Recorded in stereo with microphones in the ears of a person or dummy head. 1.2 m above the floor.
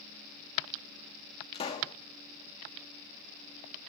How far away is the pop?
About 2.0 m.